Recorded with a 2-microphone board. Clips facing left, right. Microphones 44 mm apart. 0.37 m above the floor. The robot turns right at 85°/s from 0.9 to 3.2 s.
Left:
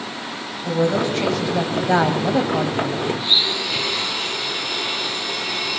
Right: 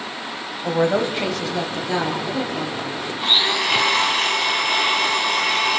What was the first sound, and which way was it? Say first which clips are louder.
A woman speaking: even; 40° right.